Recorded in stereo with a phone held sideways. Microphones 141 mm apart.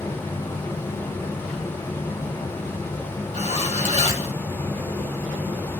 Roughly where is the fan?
Centre.